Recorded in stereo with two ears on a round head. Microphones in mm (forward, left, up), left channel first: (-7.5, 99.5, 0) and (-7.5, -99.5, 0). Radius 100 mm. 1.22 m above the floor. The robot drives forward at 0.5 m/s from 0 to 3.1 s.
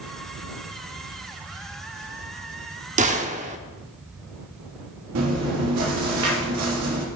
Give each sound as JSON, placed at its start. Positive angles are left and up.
{"t": 3.0, "sound": "a gunshot", "side_deg": -35, "distance_m": 0.9}
{"t": 5.2, "sound": "chewing", "side_deg": -80, "distance_m": 2.5}